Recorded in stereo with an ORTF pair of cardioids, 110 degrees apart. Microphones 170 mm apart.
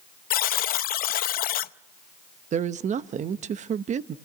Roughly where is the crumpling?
I don't hear crumpling.